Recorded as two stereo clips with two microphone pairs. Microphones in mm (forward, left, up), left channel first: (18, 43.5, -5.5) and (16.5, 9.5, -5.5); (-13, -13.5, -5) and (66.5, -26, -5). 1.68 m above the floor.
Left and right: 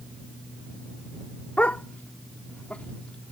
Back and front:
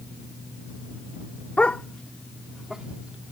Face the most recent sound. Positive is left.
turn(degrees=50)